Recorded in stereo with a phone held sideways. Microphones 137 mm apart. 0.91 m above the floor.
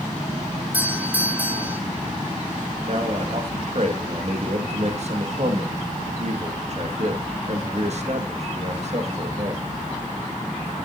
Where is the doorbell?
10° right (ahead or behind), 1.5 m.